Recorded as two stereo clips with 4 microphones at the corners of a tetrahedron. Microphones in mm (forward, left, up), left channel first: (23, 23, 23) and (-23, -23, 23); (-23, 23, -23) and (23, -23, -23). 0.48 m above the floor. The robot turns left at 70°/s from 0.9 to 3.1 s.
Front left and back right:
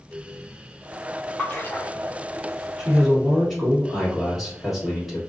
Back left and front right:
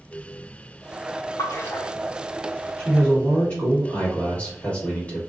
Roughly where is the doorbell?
No doorbell in this recording.